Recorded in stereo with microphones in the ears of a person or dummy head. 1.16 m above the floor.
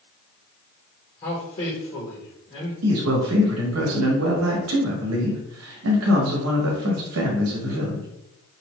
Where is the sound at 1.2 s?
35° left (ahead or behind), 0.9 m.